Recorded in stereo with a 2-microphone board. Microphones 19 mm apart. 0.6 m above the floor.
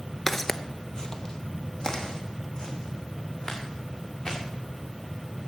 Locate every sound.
0.3 s footsteps: 10° left (ahead or behind), 0.5 m; by 4.4 s 40° left (ahead or behind), 4.5 m